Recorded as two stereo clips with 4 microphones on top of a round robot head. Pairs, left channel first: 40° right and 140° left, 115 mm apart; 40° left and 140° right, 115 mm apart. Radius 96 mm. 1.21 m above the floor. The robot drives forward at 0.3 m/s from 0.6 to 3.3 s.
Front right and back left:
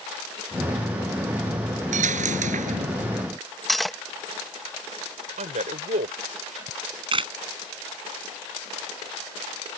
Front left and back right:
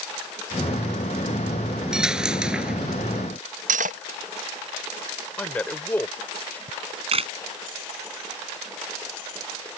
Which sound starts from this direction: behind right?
Cutlery clinking, at 3.7 s.